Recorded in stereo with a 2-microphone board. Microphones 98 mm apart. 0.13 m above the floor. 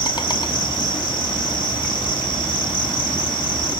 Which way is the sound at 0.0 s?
50° left (ahead or behind).